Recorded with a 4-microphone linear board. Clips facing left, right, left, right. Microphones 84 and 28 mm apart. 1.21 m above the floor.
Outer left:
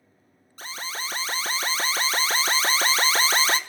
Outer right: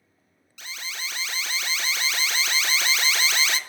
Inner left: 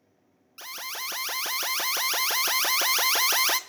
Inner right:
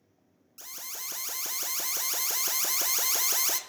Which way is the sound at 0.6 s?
35° left (ahead or behind).